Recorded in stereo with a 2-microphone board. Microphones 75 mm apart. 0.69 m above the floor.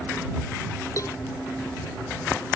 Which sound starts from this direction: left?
A cowbell, at 1.0 s.